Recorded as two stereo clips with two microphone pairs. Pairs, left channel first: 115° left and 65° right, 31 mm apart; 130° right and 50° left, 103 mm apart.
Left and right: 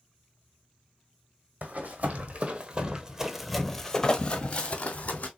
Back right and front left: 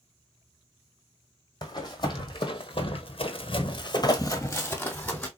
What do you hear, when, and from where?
1.6 s running footsteps: 80° right, 1.2 m; by 5.3 s 150° left, 1.1 m